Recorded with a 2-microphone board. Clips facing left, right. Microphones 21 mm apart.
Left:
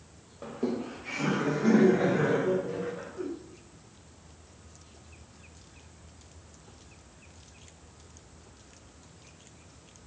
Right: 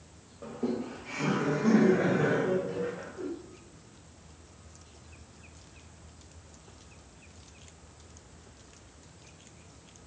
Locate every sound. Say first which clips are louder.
0.4 s laughter: left 1 dB; 30° left (ahead or behind), 0.6 m; by 3.3 s 50° left (ahead or behind), 4 m